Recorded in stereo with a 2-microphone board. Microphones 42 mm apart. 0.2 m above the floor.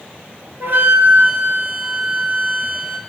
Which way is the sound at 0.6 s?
50° right (ahead or behind).